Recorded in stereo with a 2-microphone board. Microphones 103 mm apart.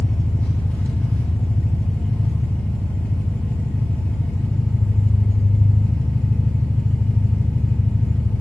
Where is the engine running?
15° left (ahead or behind), 1.3 m.